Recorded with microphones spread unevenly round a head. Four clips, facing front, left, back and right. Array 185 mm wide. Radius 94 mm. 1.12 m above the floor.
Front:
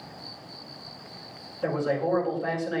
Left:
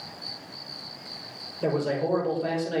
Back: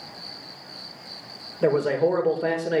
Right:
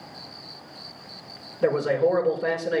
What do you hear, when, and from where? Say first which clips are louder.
1.6 s a man speaking: right 5 dB, back 6 dB; 165° right, 5 m